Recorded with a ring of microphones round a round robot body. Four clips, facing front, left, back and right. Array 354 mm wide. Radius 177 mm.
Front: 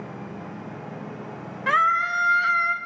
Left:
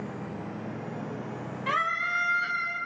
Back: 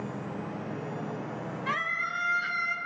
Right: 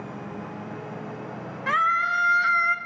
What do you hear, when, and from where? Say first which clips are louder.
1.7 s a scream: right 6 dB, front 13 dB; 20° right, 1.6 m; by 2.8 s 60° right, 2 m